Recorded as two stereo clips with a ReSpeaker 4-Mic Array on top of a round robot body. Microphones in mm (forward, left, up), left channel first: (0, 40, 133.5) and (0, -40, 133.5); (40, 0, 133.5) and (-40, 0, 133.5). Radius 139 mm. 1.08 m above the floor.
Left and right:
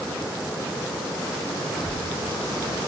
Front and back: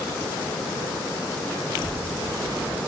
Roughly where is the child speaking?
Ahead left.